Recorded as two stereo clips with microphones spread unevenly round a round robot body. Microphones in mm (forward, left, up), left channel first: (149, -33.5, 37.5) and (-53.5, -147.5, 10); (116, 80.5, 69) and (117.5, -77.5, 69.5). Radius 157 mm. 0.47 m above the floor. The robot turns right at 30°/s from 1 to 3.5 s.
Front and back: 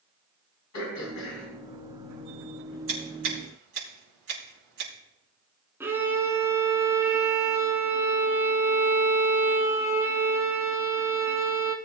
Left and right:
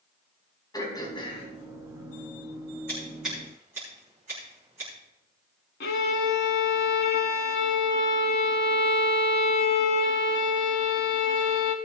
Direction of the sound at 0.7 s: 25° left.